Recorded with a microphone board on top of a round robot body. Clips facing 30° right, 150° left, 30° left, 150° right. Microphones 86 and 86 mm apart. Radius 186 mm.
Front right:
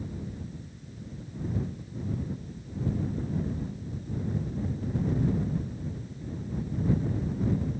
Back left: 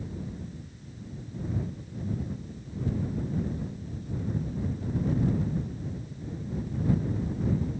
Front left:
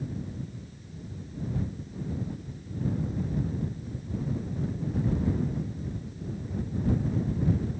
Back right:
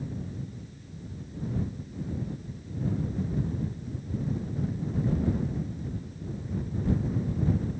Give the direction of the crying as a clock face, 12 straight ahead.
No crying in this recording.